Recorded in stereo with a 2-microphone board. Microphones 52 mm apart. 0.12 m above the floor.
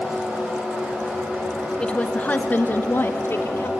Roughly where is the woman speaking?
Centre.